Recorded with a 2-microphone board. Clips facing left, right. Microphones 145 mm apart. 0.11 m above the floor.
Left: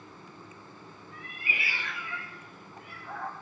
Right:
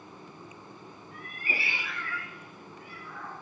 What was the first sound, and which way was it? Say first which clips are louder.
A cat meowing: right 2 dB; 60° right (ahead or behind).